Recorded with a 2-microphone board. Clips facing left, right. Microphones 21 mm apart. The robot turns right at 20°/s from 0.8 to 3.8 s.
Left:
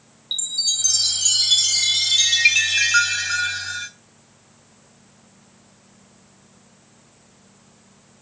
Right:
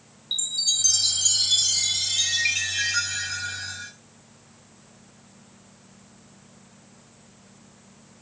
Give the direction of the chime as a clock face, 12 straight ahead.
11 o'clock.